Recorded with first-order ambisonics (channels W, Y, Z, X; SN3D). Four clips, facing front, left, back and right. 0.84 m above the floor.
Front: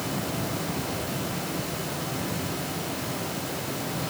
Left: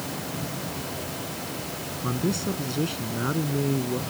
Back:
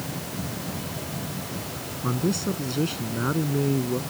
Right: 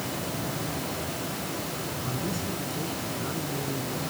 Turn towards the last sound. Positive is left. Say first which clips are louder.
# left 7 dB, back 5 dB
turn(degrees=150)